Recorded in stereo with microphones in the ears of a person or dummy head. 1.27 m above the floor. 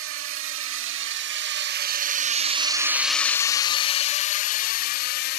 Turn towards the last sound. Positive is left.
turn(degrees=60)  # may be behind; listen again after turning